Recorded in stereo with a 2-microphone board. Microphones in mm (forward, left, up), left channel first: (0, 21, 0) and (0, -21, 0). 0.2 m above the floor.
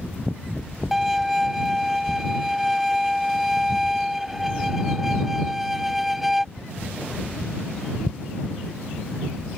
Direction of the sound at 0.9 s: 5° right (ahead or behind).